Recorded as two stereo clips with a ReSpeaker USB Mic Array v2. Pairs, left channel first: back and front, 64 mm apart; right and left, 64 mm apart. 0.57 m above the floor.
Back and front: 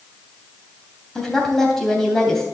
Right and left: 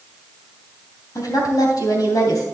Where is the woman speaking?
100° right, 3 m.